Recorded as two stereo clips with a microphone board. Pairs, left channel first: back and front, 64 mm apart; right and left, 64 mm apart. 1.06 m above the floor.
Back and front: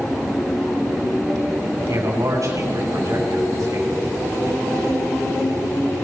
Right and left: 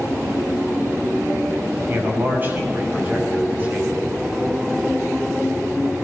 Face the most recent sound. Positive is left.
turn(degrees=25)